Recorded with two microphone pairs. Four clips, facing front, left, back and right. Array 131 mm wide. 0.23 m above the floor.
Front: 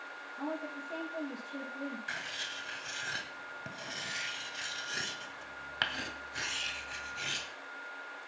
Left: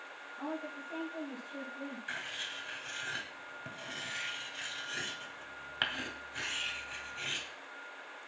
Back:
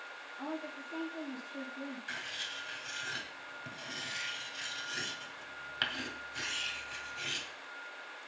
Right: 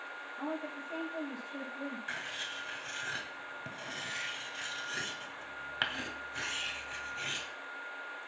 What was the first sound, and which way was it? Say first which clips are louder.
A woman speaking: right 1 dB, front 2 dB; 5° left.